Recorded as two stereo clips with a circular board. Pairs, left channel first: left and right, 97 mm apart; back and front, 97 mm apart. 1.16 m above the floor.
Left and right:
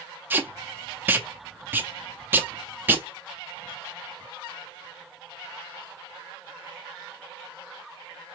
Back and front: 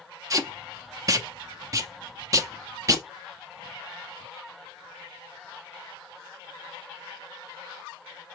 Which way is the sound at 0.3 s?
30° right.